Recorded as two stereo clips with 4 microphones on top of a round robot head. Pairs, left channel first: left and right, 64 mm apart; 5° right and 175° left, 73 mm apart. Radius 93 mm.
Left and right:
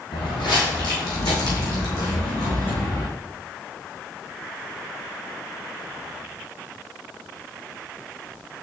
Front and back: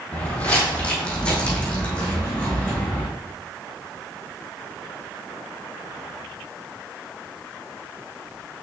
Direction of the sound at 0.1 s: 65° left.